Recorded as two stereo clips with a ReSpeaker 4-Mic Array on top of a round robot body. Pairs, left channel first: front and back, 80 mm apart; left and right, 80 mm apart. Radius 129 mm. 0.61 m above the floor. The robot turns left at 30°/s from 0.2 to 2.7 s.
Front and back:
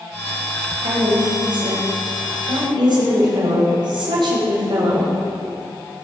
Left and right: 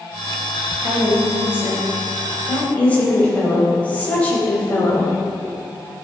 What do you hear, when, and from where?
0.8 s a woman speaking: 140° right, 4 m; by 5.1 s 165° left, 4 m